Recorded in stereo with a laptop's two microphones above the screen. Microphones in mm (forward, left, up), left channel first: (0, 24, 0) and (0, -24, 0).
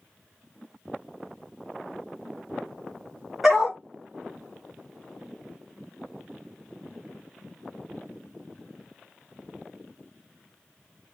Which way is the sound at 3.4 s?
Centre (ahead or behind).